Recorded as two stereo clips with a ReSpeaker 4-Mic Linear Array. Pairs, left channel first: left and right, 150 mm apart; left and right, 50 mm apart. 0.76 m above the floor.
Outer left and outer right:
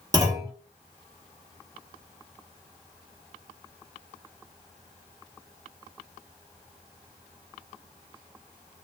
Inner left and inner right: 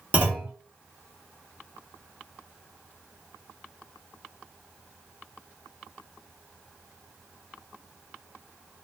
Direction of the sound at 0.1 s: 25° right (ahead or behind).